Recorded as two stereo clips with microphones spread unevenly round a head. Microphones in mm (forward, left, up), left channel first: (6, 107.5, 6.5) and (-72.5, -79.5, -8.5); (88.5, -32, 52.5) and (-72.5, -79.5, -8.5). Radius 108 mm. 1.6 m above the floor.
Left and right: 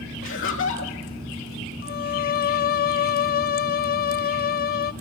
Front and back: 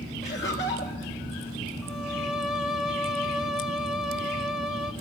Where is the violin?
90° left, 0.7 m.